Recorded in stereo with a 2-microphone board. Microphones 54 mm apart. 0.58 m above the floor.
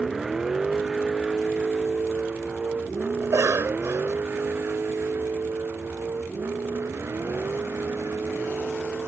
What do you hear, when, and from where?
0.0 s a vehicle: 5° right (ahead or behind); by 9.1 s 50° right (ahead or behind)
3.2 s a cough: 65° right (ahead or behind)